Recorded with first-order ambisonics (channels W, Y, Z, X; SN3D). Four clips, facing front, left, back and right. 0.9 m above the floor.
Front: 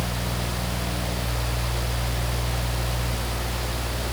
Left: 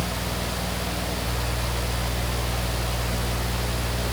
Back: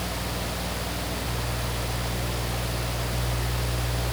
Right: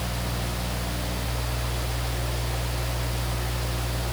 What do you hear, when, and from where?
Only background noise.